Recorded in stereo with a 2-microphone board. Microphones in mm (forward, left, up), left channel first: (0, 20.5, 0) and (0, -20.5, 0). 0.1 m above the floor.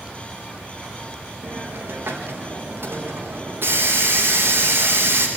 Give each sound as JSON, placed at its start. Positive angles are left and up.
{"t": 1.4, "sound": "a hiss", "side_deg": -60, "distance_m": 5.0}